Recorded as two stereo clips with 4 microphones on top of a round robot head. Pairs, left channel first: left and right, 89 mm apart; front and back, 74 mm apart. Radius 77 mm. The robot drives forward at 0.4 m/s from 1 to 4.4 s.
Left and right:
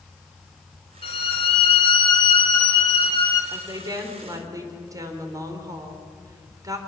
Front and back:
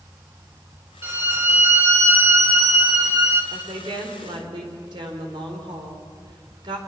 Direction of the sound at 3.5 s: 140° right.